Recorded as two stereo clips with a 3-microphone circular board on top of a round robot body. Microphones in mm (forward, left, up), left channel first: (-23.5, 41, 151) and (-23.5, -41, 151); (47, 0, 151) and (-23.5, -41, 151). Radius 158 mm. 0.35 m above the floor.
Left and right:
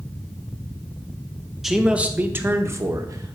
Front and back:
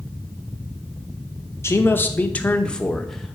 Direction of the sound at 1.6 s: 5° right.